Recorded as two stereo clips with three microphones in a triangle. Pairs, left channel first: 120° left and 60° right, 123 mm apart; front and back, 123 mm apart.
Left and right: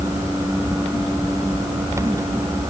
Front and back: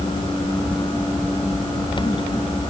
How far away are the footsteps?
I don't hear footsteps.